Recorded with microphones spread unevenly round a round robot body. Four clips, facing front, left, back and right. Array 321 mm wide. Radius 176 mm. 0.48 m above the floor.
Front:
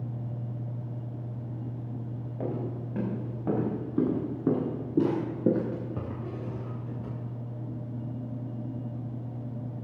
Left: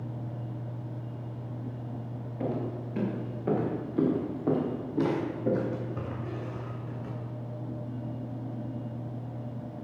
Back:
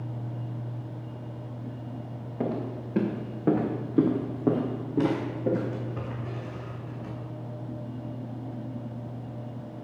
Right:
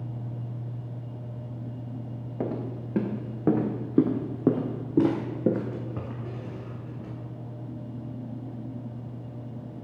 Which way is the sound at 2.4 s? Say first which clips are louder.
Right 1 dB, back 3 dB; 110° right.